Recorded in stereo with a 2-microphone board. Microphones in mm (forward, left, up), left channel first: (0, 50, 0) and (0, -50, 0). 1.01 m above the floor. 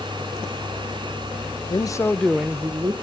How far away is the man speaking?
About 0.6 m.